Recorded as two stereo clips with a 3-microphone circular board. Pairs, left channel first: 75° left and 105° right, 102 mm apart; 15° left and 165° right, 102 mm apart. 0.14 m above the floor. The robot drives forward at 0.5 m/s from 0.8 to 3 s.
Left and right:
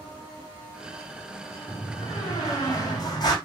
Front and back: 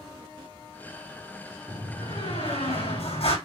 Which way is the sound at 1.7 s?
25° left.